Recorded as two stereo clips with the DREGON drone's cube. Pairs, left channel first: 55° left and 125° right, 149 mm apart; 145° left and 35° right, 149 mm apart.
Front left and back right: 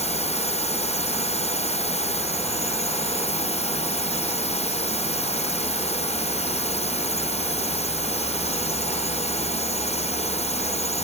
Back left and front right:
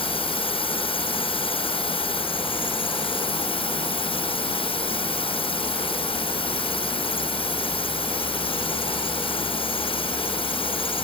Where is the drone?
95° left.